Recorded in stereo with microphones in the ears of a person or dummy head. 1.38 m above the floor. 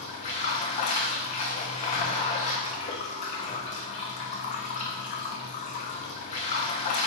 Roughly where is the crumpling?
I don't hear crumpling.